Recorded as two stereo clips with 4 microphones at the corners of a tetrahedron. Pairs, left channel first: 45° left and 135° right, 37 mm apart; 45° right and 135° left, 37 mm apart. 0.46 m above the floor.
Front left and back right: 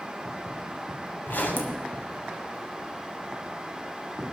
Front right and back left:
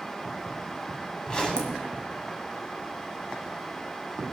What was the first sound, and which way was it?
A zipper, 20° left.